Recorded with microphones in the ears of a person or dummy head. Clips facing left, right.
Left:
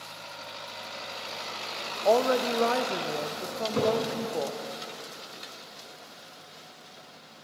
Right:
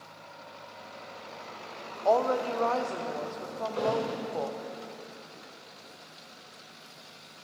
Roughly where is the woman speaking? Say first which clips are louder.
Left 2 dB; left.